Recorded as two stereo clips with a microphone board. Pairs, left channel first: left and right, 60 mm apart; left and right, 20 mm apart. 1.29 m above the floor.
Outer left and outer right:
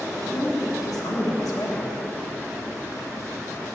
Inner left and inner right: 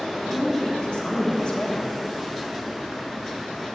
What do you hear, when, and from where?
0.2 s a woman speaking: 75° left (ahead or behind), 1.7 m